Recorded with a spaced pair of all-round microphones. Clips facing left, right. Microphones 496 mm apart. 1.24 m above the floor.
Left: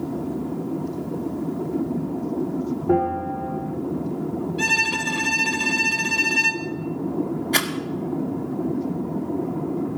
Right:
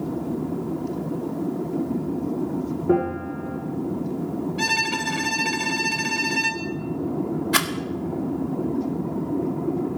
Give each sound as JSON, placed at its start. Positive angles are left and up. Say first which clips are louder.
{"t": 2.9, "sound": "a bell", "louder": "right 1 dB", "side_deg": 15, "distance_m": 6.5}
{"t": 4.6, "sound": "a violin", "louder": "even", "side_deg": -5, "distance_m": 1.3}
{"t": 7.5, "sound": "a rattle", "louder": "even", "side_deg": -30, "distance_m": 1.3}